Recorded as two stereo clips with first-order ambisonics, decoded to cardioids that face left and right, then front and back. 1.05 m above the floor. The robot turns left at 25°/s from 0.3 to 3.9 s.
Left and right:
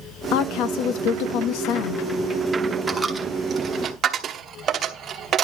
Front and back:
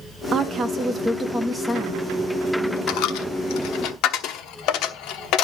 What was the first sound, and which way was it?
A woman speaking, 120° left.